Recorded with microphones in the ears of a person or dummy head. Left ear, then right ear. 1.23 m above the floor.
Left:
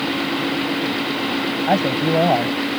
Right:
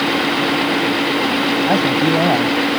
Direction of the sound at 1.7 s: 25° left (ahead or behind).